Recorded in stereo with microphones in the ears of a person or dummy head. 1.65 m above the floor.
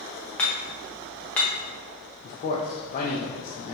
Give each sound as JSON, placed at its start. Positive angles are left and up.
{"t": 0.4, "sound": "hammering", "side_deg": 5, "distance_m": 0.6}
{"t": 2.2, "sound": "a man speaking", "side_deg": 45, "distance_m": 0.7}